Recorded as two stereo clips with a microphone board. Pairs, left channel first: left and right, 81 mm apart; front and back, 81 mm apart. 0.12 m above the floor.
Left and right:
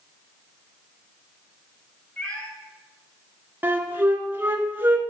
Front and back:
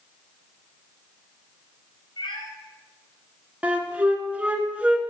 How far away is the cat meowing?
About 4 m.